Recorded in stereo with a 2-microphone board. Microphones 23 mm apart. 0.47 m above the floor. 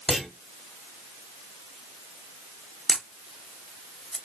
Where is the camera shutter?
10° right (ahead or behind), 0.6 m.